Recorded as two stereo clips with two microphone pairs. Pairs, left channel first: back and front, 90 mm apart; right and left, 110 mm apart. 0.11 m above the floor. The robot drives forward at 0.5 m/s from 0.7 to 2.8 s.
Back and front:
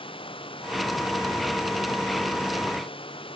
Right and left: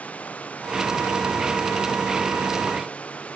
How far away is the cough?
No cough in this recording.